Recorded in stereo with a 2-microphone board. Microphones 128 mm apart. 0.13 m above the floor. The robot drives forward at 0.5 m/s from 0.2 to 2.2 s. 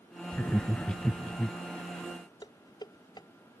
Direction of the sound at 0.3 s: 10° left (ahead or behind).